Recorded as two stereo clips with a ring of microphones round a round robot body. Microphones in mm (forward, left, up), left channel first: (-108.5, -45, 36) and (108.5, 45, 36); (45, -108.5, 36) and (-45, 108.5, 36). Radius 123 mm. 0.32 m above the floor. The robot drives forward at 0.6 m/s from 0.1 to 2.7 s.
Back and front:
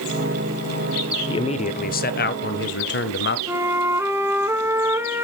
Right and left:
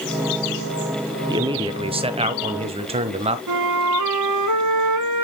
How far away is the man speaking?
About 0.9 m.